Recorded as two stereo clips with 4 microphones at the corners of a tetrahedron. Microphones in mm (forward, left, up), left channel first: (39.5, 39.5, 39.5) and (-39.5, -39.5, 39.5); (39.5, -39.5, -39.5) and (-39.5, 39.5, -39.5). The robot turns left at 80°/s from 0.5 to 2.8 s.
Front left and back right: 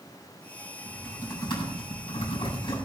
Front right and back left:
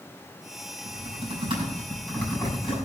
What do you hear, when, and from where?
0.8 s typing on a keyboard: 145° left, 7 m; by 2.9 s 10° right, 7 m